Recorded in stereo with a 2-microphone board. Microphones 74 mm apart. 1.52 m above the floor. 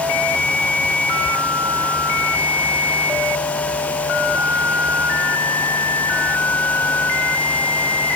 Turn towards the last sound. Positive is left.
No sound to turn to.